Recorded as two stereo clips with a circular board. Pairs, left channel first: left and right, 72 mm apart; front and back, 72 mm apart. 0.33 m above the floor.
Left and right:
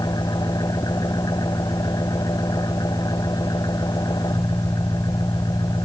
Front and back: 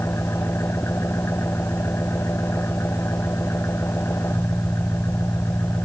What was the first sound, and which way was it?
An engine running, 55° left.